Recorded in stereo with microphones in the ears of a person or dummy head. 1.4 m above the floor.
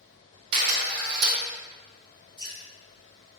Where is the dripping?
15° left (ahead or behind), 1.9 m.